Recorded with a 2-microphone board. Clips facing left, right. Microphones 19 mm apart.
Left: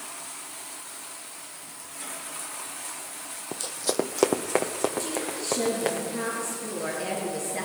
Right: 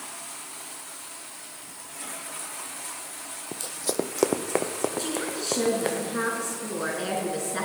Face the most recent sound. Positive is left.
turn(degrees=-75)  # may be behind; listen again after turning